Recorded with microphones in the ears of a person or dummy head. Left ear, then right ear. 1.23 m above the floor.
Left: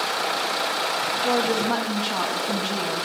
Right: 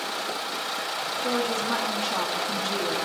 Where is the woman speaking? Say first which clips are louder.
Left 3 dB; centre (ahead or behind), 1.0 m.